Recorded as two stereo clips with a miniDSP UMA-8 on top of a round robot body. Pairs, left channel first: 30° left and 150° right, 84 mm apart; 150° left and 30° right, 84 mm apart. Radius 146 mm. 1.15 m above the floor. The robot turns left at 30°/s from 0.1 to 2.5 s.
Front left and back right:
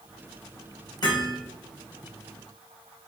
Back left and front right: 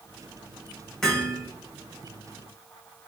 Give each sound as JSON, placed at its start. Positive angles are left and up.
{"t": 1.0, "sound": "hammering", "azimuth_deg": 70, "distance_m": 4.0}